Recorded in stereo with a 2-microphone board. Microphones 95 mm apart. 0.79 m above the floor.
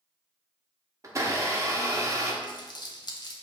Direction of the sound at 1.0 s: 35° right (ahead or behind).